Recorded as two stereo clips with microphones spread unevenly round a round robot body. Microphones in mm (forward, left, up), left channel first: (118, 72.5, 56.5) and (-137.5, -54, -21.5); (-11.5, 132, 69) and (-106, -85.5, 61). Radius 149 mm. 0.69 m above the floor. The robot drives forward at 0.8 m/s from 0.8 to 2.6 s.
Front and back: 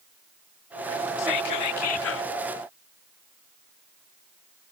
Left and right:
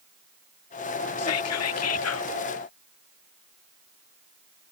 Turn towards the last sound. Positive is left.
turn(degrees=95)